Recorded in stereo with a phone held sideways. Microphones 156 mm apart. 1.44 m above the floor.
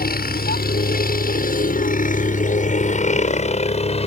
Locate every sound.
0.0 s a helicopter: 75° left (ahead or behind); by 4.1 s 40° left (ahead or behind)